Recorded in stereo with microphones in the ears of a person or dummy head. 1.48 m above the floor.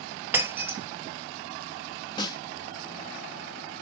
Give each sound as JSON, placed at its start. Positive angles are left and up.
{"t": 0.3, "sound": "breaking glass", "side_deg": -15, "distance_m": 1.3}
{"t": 2.2, "sound": "a snare drum", "side_deg": 30, "distance_m": 1.6}